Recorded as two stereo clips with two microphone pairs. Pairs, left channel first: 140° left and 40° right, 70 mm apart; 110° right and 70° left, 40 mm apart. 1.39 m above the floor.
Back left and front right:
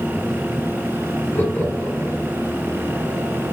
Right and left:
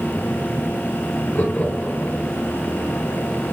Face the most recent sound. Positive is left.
turn(degrees=-155)